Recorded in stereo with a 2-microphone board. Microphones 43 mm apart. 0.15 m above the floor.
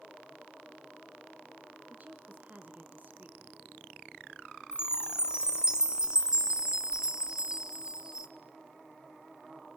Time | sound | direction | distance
1.9 | a woman speaking | 40° right (ahead or behind) | 1.4 m
4.7 | a chime | 20° right (ahead or behind) | 1.2 m